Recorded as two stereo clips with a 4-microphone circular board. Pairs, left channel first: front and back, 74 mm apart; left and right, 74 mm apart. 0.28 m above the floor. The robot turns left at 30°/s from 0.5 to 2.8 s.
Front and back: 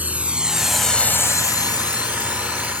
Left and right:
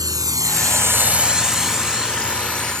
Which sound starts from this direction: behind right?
A drone, at 0.0 s.